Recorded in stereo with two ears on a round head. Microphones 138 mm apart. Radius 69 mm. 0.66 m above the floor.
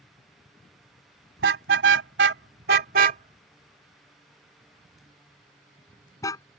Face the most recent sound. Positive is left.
turn(degrees=25)  # may be behind; listen again after turning